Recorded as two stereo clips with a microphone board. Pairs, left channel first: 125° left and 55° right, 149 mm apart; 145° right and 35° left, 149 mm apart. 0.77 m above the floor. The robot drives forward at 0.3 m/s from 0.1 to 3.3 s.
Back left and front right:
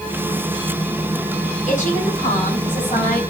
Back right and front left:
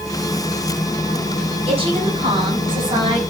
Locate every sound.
1.7 s a woman speaking: 85° left, 6.5 m; by 3.2 s 90° left, 6.5 m